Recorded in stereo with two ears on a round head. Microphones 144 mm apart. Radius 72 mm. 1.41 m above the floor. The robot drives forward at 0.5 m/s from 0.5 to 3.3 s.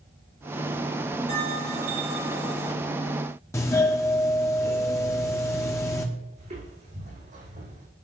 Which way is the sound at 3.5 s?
20° left (ahead or behind).